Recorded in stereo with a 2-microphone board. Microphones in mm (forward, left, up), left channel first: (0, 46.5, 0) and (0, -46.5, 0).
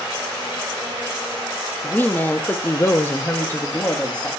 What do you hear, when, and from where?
1.8 s a woman speaking: 15° left (ahead or behind), 0.8 m; by 4.3 s 10° left (ahead or behind), 0.9 m